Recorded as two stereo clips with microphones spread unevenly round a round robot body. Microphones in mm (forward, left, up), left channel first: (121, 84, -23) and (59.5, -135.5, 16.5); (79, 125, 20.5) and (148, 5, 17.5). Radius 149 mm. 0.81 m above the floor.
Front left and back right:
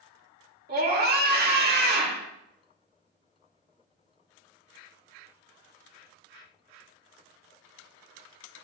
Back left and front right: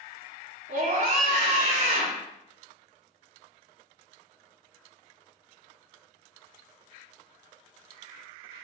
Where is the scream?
60° right, 3 m.